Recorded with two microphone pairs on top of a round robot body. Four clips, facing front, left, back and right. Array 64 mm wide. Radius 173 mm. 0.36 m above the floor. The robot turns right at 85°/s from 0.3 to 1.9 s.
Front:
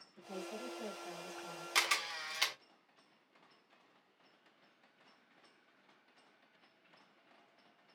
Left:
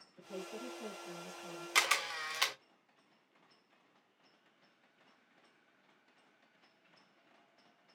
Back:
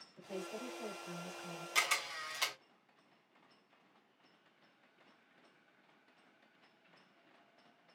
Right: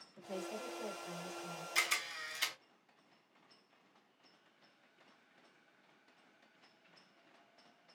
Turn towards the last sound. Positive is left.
turn(degrees=85)